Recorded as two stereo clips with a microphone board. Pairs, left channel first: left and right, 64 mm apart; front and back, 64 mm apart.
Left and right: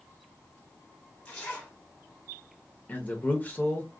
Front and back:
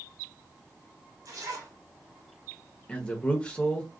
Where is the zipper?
160° left, 1.3 m.